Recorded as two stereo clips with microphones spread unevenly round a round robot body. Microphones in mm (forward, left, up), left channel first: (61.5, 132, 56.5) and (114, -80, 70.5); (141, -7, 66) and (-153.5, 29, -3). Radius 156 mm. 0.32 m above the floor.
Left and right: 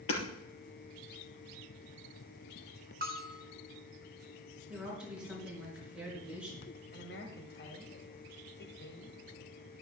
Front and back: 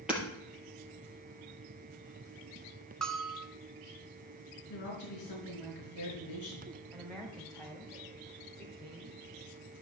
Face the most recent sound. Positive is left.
turn(degrees=90)